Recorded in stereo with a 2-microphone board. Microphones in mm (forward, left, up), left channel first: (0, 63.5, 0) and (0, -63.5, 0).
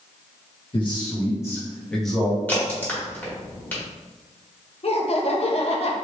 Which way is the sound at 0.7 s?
40° left (ahead or behind).